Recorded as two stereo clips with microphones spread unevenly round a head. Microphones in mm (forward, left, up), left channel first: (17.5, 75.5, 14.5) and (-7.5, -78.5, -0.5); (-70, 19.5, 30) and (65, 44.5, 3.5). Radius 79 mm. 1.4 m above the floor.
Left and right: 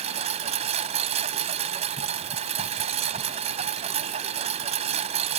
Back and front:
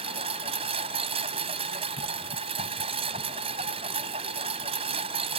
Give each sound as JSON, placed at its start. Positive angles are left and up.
{"t": 0.0, "sound": "a lawn mower", "azimuth_deg": -50}